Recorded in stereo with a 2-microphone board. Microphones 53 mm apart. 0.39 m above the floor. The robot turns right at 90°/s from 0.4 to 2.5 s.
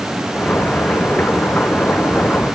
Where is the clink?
No clink in this recording.